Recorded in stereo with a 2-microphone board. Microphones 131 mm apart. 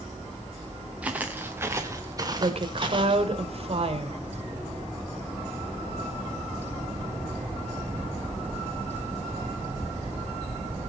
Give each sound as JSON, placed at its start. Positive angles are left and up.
{"t": 1.0, "sound": "footsteps", "side_deg": -10, "distance_m": 2.0}
{"t": 2.4, "sound": "a woman speaking", "side_deg": -50, "distance_m": 1.8}